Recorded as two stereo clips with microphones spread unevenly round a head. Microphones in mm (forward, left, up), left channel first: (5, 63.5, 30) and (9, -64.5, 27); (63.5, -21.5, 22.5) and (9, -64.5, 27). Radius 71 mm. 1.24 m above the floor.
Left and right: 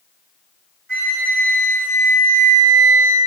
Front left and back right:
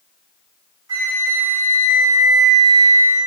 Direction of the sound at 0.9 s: 115° right.